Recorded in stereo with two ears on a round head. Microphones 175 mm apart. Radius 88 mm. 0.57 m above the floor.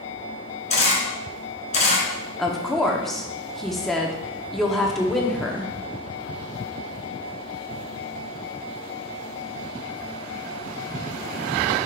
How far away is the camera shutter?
About 1.8 m.